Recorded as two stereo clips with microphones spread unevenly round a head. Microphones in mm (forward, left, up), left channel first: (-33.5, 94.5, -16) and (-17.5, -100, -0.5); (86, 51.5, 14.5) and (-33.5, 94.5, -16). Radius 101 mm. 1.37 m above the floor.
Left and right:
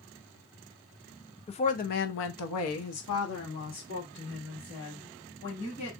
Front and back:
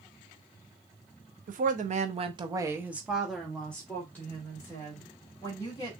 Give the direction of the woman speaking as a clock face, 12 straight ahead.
7 o'clock.